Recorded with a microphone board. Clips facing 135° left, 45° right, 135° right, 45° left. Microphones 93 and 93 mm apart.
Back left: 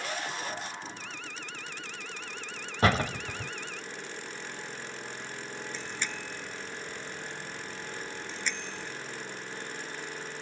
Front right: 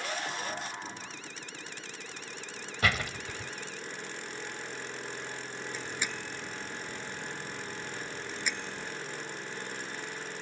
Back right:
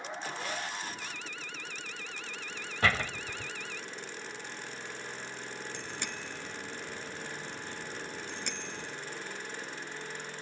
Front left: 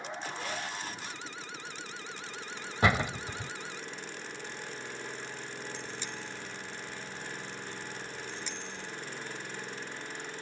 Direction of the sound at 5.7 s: 125° right.